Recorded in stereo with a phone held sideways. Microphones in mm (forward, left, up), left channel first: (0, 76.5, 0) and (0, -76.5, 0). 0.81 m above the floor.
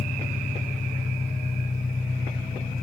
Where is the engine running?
55° left (ahead or behind), 3 m.